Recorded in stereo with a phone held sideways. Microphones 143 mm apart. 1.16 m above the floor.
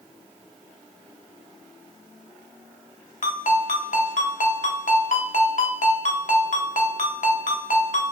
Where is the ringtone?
65° left (ahead or behind), 0.6 m.